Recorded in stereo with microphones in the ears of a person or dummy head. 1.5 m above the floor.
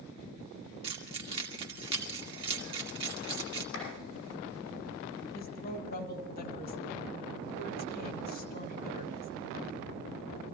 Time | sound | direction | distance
0.8 | keys jangling | 25° right (ahead or behind) | 1.9 m
3.7 | a clap | 80° left | 9.5 m
5.3 | a woman speaking | 50° left (ahead or behind) | 2 m